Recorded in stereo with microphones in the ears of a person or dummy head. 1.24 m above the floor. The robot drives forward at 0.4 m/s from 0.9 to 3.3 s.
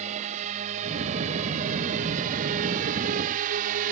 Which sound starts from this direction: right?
A drone, at 0.0 s.